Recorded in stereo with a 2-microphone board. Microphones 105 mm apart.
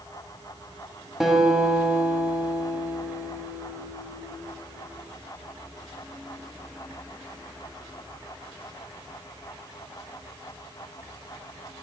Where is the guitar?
5° right (ahead or behind), 1.1 m.